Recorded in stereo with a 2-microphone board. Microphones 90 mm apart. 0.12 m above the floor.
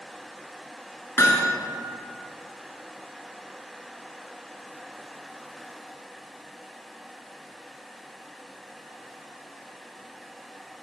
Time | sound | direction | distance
1.2 | hammering | 30° left (ahead or behind) | 1.0 m